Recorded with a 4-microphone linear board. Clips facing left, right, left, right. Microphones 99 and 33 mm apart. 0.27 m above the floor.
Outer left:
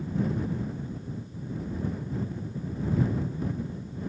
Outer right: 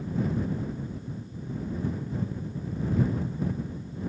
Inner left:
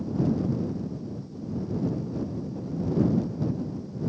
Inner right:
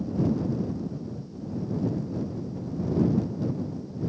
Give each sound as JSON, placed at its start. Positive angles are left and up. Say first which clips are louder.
{"t": 1.6, "sound": "ticking", "louder": "outer right 2 dB, even", "side_deg": 75}